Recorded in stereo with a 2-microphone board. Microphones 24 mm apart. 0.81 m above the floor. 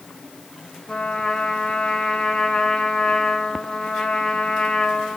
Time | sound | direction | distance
0.9 | a trumpet | 20° left (ahead or behind) | 5 m